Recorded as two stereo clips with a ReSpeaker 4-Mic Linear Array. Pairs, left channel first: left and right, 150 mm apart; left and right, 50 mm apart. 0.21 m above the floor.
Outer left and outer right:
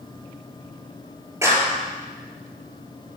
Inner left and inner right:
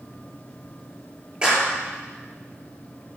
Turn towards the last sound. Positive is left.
turn(degrees=-20)  # may be behind; listen again after turning